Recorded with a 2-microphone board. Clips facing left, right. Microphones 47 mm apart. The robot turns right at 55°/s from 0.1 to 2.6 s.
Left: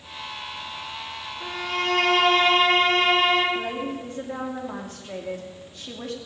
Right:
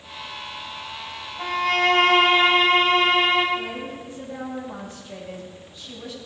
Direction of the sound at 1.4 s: 70° right.